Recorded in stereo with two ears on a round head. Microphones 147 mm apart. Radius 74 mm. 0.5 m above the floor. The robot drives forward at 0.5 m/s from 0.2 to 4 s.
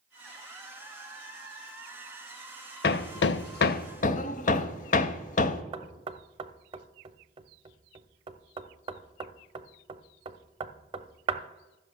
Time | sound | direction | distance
2.8 | hammering | 60° left (ahead or behind) | 0.5 m
5.7 | knocking | 30° right (ahead or behind) | 0.6 m